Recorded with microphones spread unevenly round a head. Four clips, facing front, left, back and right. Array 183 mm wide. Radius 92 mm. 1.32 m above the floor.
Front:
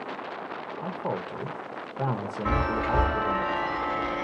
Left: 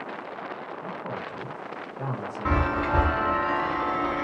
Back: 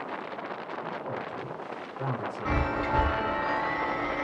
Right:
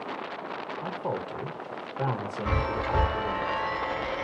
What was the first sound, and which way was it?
A man speaking, 25° right.